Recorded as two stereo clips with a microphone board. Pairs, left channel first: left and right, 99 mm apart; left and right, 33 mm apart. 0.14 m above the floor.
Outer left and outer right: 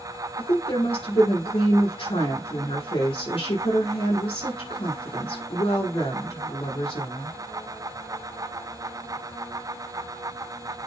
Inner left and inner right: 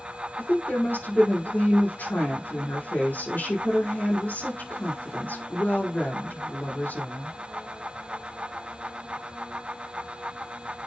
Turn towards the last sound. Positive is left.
turn(degrees=70)  # may be behind; listen again after turning